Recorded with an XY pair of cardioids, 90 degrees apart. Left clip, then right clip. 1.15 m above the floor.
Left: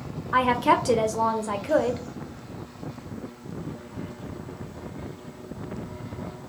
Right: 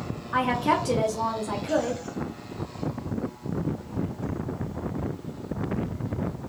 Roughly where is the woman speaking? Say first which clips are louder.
Left 3 dB; ahead left.